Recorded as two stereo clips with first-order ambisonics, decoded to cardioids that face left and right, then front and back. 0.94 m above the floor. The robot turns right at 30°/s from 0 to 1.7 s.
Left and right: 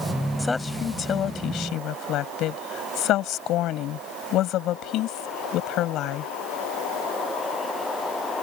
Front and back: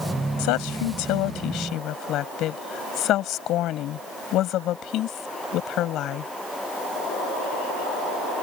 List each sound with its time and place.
0.4 s a woman speaking: 5° left; by 6.3 s 45° left